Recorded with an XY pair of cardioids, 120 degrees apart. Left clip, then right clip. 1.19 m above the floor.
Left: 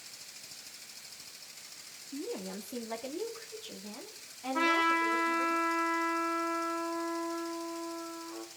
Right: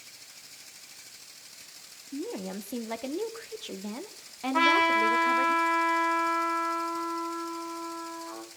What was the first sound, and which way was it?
A woman speaking, 30° right.